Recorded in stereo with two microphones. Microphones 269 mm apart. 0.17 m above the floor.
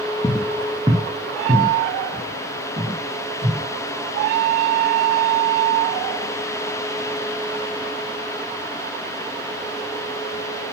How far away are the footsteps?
About 0.6 m.